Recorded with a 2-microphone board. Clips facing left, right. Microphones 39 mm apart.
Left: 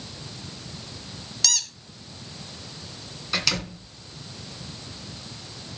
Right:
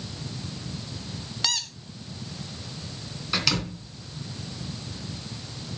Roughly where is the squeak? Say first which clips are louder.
Even; right.